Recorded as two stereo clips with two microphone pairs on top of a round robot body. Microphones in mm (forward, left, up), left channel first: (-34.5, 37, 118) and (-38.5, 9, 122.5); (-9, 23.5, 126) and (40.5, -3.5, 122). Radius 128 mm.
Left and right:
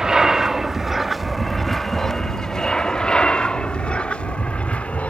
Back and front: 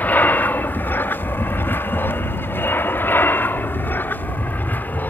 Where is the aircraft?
160° right; by 5.1 s 95° left.